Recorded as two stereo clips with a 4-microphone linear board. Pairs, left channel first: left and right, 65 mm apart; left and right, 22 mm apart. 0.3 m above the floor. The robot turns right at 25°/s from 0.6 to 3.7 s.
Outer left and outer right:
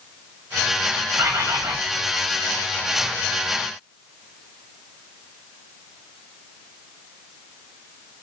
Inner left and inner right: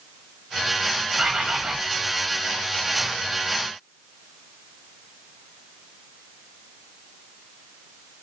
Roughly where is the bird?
Right.